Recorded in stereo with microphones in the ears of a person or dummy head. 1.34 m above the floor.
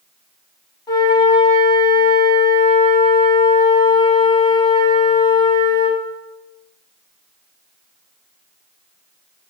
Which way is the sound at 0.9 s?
20° left (ahead or behind).